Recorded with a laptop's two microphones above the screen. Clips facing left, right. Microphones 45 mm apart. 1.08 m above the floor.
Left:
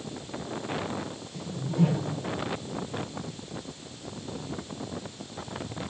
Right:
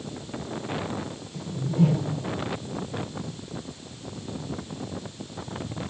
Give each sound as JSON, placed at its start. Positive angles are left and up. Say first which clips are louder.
{"t": 1.4, "sound": "a whoosh", "louder": "right 3 dB", "side_deg": 0, "distance_m": 5.5}